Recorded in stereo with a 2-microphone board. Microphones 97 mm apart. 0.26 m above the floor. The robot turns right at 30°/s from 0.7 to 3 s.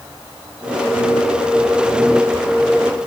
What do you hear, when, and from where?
Only background noise.